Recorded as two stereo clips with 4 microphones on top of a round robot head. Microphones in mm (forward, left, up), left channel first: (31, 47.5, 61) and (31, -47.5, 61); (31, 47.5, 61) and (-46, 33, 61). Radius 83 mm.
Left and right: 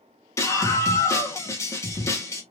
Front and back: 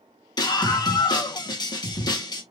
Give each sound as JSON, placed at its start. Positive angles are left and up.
{"t": 0.4, "sound": "a scream", "azimuth_deg": 35, "distance_m": 1.7}